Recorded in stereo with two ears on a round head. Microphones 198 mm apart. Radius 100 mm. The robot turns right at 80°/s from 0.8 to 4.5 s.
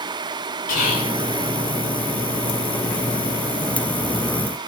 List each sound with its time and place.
0.7 s whispering: 80° left, 7.5 m; by 1.2 s 70° left (ahead or behind), 7.5 m